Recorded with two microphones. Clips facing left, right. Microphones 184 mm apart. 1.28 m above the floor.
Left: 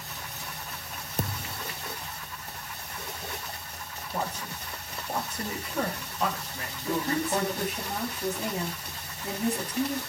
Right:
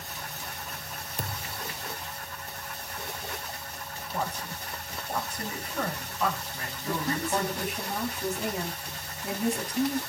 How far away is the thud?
About 0.7 m.